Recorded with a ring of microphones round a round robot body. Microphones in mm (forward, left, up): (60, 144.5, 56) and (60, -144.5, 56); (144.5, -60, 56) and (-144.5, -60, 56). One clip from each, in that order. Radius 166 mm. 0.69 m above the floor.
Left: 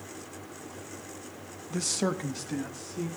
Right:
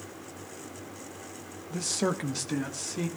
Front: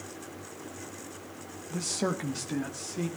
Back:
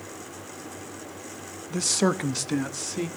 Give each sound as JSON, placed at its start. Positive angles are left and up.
{"t": 1.7, "sound": "a man speaking", "azimuth_deg": 140, "distance_m": 1.0}